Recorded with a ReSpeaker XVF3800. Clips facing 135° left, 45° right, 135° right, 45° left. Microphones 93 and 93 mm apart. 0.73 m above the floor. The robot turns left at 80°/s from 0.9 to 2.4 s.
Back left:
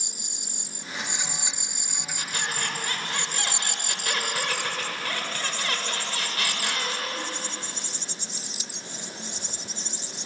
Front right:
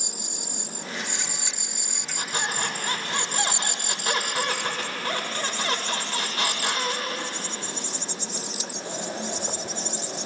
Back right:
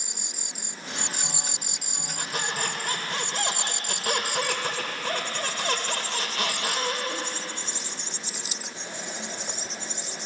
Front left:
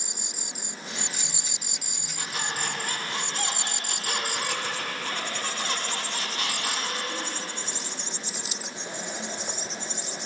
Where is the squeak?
95° right, 1.9 m; by 7.3 s 110° right, 1.9 m.